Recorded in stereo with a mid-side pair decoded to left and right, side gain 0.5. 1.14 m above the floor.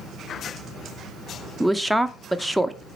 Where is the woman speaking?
Straight ahead, 0.6 m.